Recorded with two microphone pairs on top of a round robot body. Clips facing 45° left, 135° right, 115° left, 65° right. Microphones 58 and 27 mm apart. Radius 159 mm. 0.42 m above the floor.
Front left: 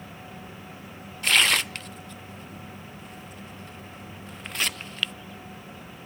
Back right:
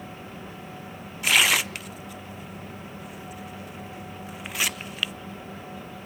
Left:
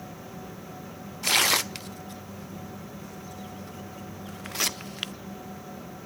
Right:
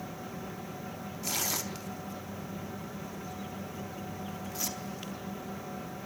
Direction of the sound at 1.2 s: 145° left.